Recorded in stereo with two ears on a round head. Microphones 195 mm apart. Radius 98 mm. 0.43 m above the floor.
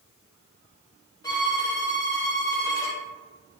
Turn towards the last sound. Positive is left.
turn(degrees=15)  # may be behind; listen again after turning